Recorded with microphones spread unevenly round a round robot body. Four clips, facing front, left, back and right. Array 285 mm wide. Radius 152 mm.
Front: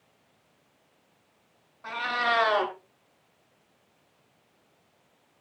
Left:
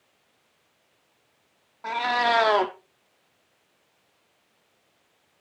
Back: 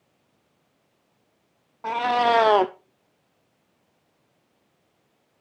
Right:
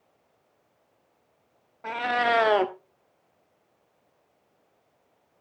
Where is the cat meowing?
175° right, 0.6 m.